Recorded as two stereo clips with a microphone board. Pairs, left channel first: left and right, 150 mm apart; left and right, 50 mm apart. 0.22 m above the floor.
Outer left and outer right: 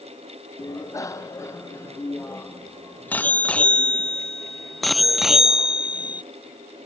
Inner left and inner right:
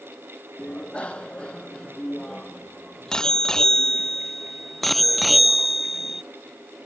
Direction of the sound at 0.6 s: 25° left (ahead or behind).